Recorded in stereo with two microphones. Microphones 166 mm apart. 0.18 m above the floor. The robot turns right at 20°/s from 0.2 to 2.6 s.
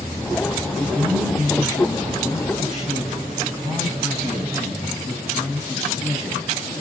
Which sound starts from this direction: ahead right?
A man speaking, at 0.8 s.